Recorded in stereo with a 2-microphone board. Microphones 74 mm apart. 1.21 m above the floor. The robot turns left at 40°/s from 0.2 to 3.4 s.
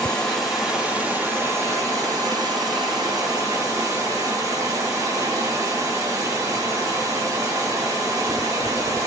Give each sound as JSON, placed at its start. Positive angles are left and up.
{"t": 0.0, "sound": "running water", "azimuth_deg": 15, "distance_m": 2.5}